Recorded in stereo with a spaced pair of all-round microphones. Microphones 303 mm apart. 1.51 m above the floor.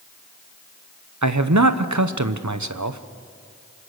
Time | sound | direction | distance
1.2 | a man speaking | 70° right (ahead or behind) | 1.0 m